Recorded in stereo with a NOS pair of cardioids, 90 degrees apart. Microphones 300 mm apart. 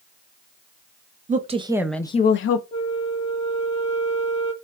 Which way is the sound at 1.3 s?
25° right.